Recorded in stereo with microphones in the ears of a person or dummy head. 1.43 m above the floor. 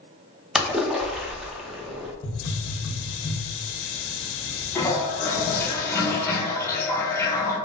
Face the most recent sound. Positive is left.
turn(degrees=15)  # may be behind; listen again after turning